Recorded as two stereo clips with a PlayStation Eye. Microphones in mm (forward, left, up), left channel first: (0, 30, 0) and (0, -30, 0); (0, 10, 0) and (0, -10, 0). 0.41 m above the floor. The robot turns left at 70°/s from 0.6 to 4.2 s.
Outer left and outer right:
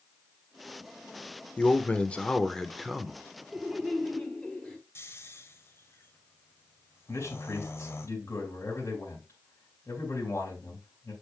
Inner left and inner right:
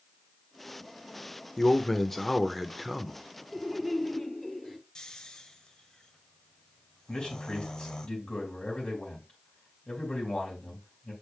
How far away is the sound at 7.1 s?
About 2.5 m.